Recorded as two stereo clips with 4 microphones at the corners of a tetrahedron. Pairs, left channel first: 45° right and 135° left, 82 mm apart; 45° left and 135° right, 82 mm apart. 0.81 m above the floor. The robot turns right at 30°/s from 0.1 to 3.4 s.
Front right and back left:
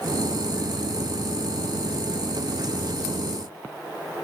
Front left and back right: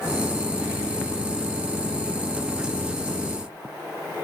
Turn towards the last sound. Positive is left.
No sound to turn to.